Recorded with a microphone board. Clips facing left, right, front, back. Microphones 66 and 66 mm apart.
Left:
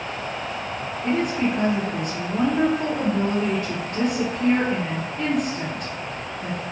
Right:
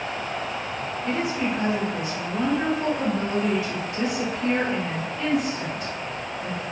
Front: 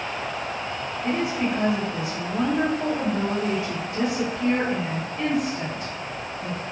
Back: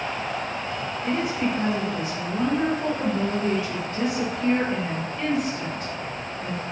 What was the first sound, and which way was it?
A woman speaking, 70° left.